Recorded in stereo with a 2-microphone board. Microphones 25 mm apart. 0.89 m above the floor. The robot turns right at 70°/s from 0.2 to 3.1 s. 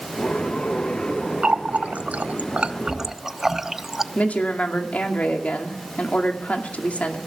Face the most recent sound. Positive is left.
turn(degrees=65)  # may be behind; listen again after turning